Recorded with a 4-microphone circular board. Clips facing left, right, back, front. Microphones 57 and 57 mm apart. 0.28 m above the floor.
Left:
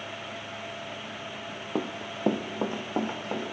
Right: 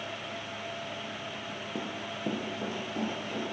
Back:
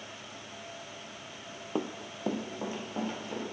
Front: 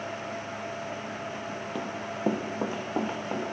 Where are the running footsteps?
120° left, 0.5 m; by 3.4 s 55° left, 2 m.